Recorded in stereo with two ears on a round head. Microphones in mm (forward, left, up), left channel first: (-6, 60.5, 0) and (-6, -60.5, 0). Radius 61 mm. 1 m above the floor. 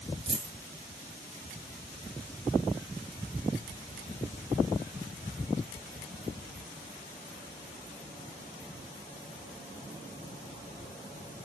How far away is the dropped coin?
About 5 m.